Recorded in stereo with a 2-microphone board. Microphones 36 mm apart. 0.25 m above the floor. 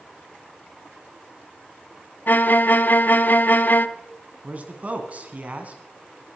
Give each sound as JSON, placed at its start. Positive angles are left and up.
{"t": 2.3, "sound": "a violin", "side_deg": 55, "distance_m": 0.5}
{"t": 4.4, "sound": "a man speaking", "side_deg": -40, "distance_m": 2.5}